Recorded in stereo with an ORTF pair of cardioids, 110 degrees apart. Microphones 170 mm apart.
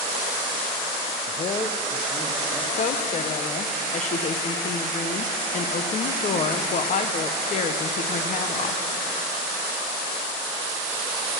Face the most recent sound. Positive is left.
turn(degrees=45)